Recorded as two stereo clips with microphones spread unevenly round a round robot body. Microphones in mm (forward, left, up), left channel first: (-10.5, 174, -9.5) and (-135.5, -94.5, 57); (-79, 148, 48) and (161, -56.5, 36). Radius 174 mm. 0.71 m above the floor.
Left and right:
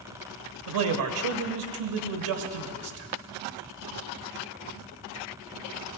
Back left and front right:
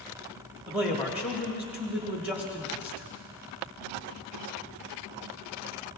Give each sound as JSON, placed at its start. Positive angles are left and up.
{"t": 0.7, "sound": "a man speaking", "azimuth_deg": -125, "distance_m": 1.4}